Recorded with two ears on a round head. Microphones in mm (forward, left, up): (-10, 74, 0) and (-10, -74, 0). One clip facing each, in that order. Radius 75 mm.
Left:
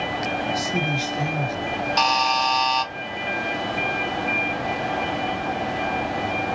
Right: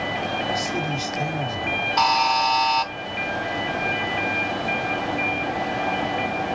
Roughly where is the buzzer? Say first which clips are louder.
Right 2 dB; left.